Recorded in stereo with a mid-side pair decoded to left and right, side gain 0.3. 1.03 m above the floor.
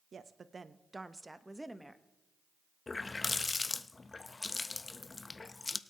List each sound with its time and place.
0.1 s a woman speaking: 60° right, 0.7 m; by 2.0 s straight ahead, 1.2 m
2.9 s a running tap: 40° left, 0.6 m